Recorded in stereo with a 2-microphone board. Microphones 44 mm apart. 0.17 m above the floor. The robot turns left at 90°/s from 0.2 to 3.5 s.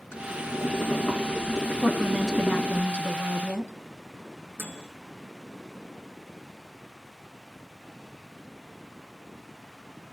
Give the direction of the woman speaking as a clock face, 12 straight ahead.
10 o'clock.